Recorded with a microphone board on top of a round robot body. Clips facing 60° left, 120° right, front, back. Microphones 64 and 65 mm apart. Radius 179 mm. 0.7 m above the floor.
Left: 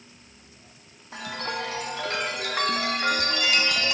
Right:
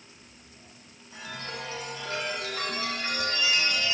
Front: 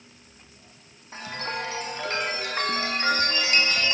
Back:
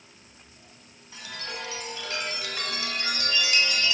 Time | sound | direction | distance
1.1 | a chime | 50° left | 1.8 m